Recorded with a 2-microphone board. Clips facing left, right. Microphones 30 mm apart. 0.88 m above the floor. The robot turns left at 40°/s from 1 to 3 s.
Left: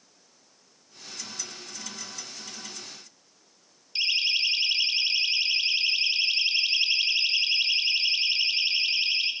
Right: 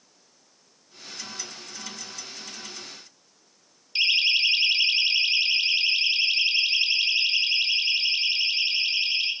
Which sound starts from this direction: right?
A siren, at 4.0 s.